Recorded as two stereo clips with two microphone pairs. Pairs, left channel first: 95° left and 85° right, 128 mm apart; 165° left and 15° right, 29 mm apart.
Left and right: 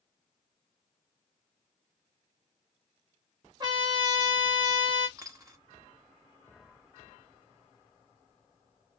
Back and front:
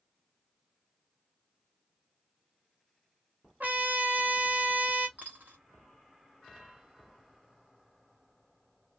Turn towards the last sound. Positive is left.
turn(degrees=-20)